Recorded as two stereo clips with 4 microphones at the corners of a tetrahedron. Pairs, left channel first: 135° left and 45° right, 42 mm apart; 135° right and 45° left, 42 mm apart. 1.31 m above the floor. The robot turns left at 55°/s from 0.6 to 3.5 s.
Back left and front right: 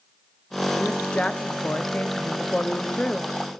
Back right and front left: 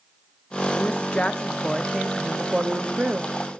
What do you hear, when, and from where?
0.7 s a woman speaking: 155° right, 0.5 m; by 3.3 s 65° left, 0.5 m